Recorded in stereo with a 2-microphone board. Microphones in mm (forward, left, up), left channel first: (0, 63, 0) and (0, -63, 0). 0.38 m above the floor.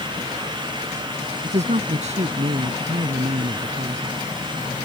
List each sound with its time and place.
1.4 s a man speaking: 65° right (ahead or behind)